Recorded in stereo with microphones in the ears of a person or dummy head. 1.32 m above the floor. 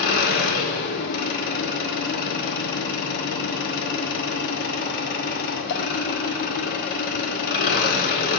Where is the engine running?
50° left (ahead or behind), 1.2 m.